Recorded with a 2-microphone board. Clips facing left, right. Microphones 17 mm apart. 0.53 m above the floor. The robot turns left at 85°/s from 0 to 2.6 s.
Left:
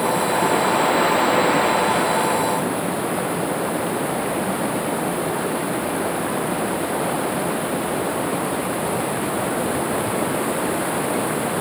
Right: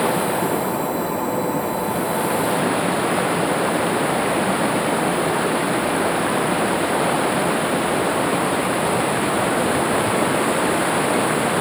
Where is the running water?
160° right; by 11.6 s 20° right.